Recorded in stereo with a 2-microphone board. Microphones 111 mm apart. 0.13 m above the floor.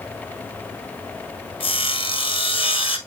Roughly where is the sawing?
Left.